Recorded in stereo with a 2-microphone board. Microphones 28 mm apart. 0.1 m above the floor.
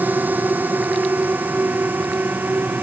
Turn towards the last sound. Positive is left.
turn(degrees=-75)  # may be behind; listen again after turning